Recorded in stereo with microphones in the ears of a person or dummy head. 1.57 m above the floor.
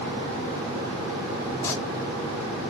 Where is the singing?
15° left (ahead or behind), 0.6 m.